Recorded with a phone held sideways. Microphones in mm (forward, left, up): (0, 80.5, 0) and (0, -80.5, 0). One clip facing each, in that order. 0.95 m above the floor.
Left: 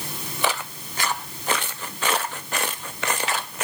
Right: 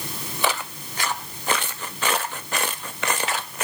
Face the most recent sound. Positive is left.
No sound to turn to.